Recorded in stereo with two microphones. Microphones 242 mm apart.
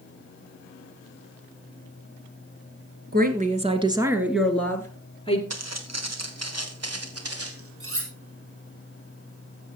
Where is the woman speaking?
40° right (ahead or behind), 1.3 m; by 5.4 s 25° left (ahead or behind), 1.5 m.